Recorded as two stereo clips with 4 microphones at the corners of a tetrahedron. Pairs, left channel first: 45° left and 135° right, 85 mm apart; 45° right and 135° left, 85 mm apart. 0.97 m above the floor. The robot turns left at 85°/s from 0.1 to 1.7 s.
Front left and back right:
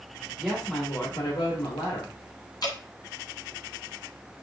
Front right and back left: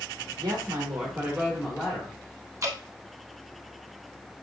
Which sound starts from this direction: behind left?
A woman speaking, at 0.4 s.